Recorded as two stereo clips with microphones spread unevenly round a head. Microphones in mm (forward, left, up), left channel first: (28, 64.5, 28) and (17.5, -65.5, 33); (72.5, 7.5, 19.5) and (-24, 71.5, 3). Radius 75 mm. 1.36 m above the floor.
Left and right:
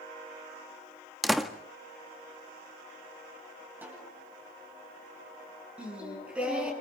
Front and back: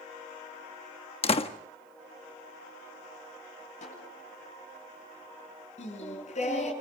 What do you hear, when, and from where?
1.2 s a door slam: 5° right, 1.3 m
3.8 s a snare drum: 20° right, 9 m
5.8 s singing: 15° right, 7.5 m